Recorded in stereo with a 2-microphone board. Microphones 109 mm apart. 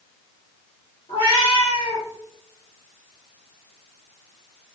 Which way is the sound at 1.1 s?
55° left (ahead or behind).